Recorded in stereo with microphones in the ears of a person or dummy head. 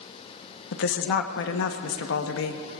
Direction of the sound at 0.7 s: 70° left (ahead or behind).